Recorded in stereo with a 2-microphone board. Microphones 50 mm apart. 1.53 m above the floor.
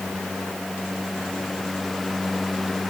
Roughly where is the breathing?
I don't hear breathing.